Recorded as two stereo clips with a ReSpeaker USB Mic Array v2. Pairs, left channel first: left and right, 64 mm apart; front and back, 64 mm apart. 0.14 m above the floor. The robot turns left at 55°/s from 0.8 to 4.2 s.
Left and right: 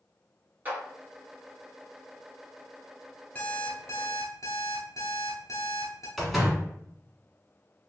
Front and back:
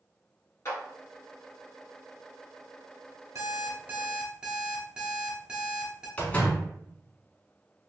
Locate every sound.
0.7 s a clap: 35° right, 1.8 m
3.4 s an alarm clock: 150° left, 1.1 m; by 6.1 s 105° left, 1.1 m
6.2 s a door slam: 5° right, 1.0 m